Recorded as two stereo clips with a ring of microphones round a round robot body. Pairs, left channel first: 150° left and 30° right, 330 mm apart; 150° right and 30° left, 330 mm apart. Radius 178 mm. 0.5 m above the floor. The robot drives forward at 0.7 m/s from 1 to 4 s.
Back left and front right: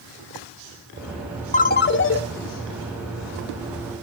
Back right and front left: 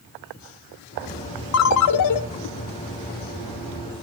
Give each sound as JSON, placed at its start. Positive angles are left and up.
{"t": 1.5, "sound": "a ringtone", "azimuth_deg": -150, "distance_m": 0.8}